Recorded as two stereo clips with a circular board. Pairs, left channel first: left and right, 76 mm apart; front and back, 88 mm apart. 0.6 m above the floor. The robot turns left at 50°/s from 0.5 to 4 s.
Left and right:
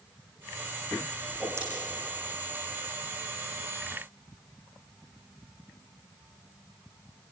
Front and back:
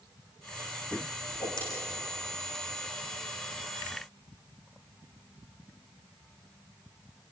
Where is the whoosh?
20° right, 6 m; by 1.6 s 35° right, 6 m.